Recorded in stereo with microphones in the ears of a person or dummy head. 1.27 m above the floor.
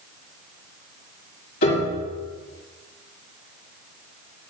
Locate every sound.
1.6 s a piano: 65° left (ahead or behind), 2.5 m